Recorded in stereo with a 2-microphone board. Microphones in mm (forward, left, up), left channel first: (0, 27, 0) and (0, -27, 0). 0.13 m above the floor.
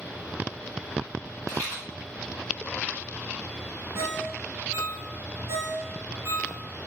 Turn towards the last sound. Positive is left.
turn(degrees=-50)  # may be behind; listen again after turning